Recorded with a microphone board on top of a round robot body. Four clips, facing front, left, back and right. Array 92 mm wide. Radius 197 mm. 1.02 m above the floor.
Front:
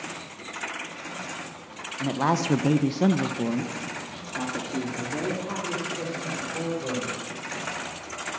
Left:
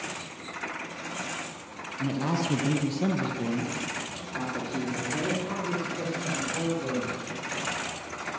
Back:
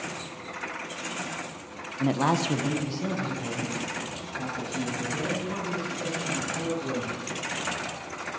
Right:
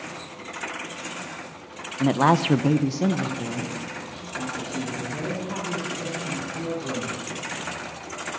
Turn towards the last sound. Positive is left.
turn(degrees=30)